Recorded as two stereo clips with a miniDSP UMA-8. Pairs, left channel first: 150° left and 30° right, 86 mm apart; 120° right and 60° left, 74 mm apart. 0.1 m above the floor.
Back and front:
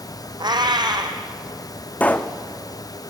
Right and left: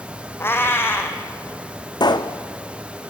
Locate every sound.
0.4 s a cat meowing: 65° right, 1.6 m
2.0 s a pop: 135° right, 1.1 m